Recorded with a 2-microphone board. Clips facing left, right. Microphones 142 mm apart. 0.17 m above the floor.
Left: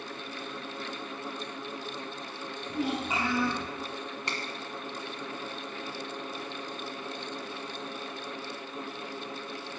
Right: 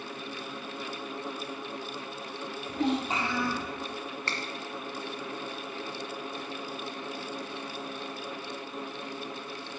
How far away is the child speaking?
About 4.5 m.